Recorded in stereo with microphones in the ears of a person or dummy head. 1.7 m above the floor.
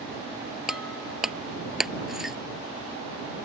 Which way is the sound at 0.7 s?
5° right (ahead or behind).